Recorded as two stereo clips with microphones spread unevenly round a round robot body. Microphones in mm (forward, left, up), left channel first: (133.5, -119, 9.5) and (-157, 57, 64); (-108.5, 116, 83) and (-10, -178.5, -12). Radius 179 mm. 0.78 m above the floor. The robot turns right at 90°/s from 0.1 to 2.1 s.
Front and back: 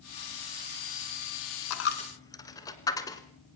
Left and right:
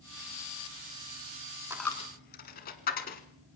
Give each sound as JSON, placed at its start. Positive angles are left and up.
{"t": 1.7, "sound": "a dropped coin", "azimuth_deg": 15, "distance_m": 1.4}